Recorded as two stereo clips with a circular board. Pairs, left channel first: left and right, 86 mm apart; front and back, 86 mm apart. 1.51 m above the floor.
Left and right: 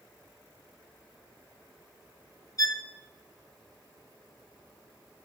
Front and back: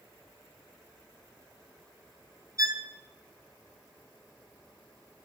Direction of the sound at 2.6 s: 135° left.